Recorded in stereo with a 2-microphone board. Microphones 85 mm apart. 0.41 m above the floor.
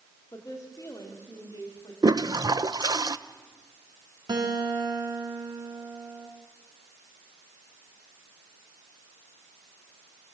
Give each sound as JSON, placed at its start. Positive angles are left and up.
{"t": 0.3, "sound": "a woman speaking", "side_deg": 40, "distance_m": 2.5}
{"t": 2.0, "sound": "a toilet flushing", "side_deg": -60, "distance_m": 0.7}
{"t": 4.3, "sound": "a guitar", "side_deg": -65, "distance_m": 4.0}